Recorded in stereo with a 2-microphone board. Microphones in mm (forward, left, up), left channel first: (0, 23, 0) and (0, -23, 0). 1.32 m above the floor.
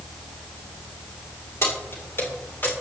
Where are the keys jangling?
70° left (ahead or behind), 4 m; by 2.7 s 50° left (ahead or behind), 3.5 m.